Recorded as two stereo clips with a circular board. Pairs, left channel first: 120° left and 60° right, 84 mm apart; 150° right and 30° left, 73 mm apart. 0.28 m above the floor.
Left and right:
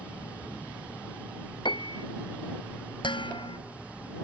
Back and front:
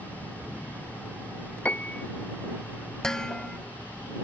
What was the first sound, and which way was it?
A piano, 140° left.